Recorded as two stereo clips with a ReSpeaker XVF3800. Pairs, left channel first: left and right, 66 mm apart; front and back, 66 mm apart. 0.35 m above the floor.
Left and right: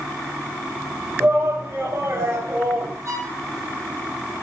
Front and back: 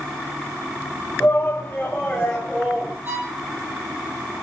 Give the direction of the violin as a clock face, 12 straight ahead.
4 o'clock.